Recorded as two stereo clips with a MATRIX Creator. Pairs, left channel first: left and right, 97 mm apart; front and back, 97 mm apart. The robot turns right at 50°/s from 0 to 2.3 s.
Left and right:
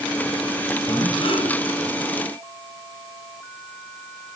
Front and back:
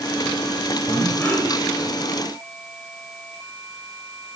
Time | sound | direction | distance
0.9 | breathing | 50° left | 9 m